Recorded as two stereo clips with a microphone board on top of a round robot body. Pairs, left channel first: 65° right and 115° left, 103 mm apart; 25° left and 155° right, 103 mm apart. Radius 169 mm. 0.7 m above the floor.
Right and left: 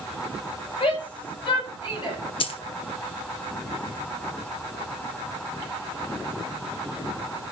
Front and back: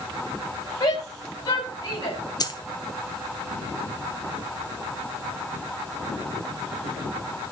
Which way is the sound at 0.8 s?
30° right.